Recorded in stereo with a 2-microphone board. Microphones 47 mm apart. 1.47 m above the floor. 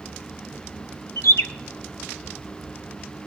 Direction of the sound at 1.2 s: 65° left (ahead or behind).